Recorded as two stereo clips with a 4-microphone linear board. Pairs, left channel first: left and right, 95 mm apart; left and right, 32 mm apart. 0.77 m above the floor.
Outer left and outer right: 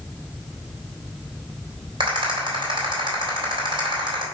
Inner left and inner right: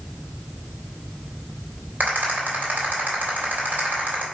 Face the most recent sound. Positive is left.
turn(degrees=-65)  # may be behind; listen again after turning